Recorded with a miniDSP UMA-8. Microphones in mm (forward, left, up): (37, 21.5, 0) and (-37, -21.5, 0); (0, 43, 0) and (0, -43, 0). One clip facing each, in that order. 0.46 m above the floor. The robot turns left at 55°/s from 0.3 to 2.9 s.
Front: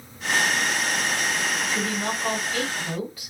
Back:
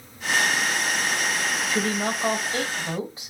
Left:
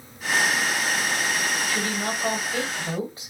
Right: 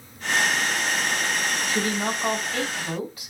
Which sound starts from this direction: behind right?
A woman speaking, at 1.7 s.